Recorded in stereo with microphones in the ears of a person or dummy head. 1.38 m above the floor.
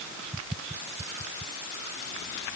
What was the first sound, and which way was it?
Only background noise.